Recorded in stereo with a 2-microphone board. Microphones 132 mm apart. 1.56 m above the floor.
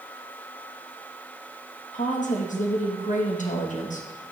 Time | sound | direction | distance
1.9 | a woman speaking | 70° left (ahead or behind) | 1.8 m